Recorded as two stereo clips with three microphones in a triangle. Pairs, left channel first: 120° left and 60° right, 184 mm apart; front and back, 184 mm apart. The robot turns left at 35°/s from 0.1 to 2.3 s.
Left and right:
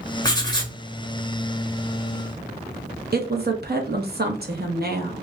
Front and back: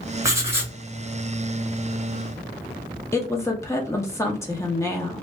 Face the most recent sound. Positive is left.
turn(degrees=-70)